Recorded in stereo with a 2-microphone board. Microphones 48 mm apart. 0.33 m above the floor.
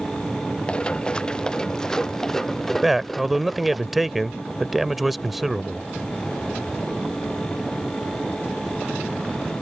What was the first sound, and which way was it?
Running footsteps, 20° left (ahead or behind).